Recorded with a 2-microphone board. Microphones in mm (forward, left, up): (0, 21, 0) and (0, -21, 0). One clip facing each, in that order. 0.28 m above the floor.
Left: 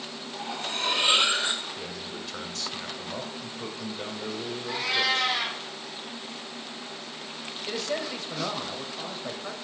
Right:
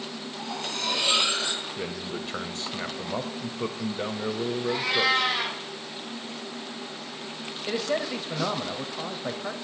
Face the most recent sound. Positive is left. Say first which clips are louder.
# right 4 dB
turn(degrees=-15)  # may be behind; listen again after turning